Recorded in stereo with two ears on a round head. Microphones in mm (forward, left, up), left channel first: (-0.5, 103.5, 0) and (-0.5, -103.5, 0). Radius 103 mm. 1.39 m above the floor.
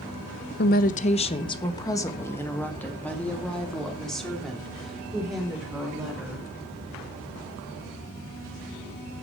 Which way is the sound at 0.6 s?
45° left (ahead or behind).